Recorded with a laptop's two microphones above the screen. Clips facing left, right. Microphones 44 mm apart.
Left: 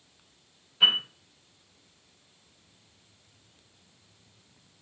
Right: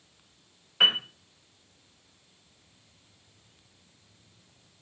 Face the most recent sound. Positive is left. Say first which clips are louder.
# even
turn(degrees=-80)